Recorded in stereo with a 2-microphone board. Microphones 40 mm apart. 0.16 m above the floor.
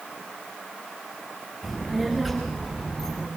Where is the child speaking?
5° right (ahead or behind), 8.5 m; by 3.3 s 15° right (ahead or behind), 9 m.